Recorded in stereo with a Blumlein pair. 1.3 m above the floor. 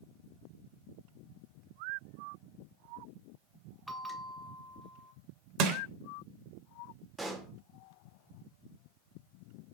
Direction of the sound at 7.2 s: 10° right.